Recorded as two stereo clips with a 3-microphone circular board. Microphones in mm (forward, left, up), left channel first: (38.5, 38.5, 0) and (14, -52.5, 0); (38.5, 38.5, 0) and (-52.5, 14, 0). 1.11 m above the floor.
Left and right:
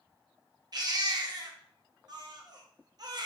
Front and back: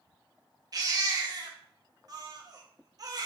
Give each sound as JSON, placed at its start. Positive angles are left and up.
{"t": 0.7, "sound": "a baby crying", "azimuth_deg": -130, "distance_m": 0.6}